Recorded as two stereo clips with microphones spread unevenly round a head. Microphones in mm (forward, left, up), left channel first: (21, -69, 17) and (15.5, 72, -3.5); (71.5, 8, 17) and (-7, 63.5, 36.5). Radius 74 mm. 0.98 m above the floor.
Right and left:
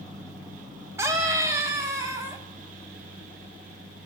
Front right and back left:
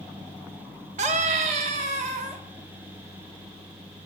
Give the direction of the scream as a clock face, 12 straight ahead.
7 o'clock.